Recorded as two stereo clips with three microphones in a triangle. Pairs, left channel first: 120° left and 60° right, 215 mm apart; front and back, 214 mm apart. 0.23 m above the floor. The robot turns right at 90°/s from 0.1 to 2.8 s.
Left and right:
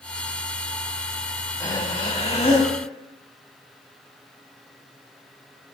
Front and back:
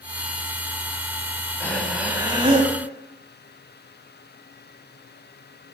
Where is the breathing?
65° left, 0.8 m; by 2.7 s 170° left, 0.8 m.